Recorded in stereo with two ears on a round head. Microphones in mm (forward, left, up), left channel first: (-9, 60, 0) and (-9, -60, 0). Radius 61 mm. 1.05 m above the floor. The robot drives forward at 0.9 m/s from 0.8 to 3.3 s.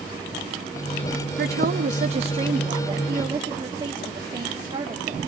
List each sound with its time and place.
1.4 s a woman speaking: 80° right, 0.8 m; by 5.2 s 25° right (ahead or behind), 1.9 m